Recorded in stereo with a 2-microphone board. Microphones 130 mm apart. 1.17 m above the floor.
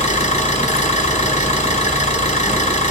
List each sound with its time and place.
0.0 s an engine running: 60° left (ahead or behind), 1.6 m